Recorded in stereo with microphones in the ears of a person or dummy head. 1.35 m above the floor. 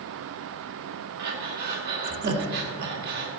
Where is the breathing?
50° right (ahead or behind), 1.7 m.